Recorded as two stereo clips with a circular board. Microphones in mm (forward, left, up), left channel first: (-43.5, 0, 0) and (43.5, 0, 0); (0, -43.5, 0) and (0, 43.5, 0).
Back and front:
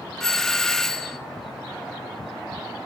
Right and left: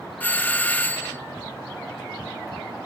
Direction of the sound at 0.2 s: 105° right.